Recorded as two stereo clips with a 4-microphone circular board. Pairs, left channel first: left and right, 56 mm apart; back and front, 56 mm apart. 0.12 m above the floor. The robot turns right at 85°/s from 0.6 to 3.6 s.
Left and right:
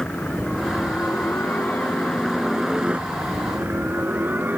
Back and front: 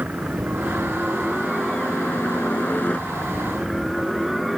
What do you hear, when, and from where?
0.0 s a helicopter: 20° left; by 4.6 s 85° right